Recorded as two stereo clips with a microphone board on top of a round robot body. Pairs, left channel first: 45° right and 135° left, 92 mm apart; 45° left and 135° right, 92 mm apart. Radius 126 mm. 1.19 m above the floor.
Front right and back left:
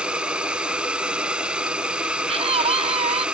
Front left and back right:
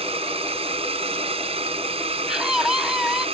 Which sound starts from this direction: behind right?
A drone, at 0.0 s.